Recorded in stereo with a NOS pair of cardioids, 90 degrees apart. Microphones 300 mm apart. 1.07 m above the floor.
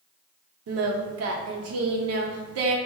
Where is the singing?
50° right, 0.7 m.